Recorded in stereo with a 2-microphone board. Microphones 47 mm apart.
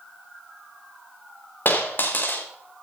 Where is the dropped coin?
45° left (ahead or behind), 5 m.